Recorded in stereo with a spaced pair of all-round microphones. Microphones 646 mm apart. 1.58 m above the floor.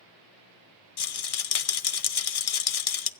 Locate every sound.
1.0 s a rattle: 60° left (ahead or behind), 0.6 m